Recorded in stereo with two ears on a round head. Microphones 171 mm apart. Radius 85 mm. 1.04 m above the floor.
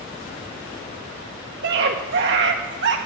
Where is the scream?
60° right (ahead or behind), 1.8 m.